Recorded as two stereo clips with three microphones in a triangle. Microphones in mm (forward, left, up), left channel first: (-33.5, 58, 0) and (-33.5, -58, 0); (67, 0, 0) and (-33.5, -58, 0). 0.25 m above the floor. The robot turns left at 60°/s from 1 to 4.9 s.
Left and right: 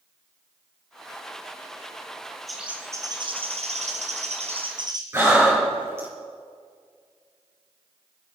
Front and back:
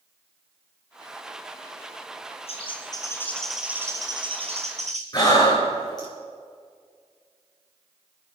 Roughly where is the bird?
Ahead.